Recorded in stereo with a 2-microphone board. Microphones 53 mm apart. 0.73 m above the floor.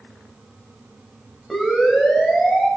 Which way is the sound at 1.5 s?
Centre (ahead or behind).